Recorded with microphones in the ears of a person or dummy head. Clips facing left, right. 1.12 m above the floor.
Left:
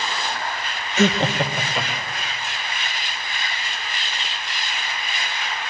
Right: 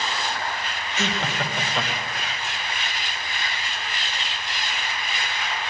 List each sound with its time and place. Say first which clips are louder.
1.0 s laughter: left 9 dB; 45° left (ahead or behind), 0.6 m; by 2.3 s 5° right (ahead or behind), 1.5 m